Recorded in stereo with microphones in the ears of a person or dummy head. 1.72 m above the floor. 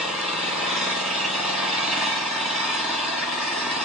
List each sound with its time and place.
0.0 s an engine running: centre (ahead or behind), 1.8 m